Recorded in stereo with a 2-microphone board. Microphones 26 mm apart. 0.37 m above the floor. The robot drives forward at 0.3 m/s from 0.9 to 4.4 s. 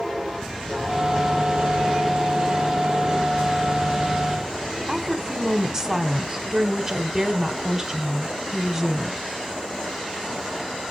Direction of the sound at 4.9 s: 25° right (ahead or behind).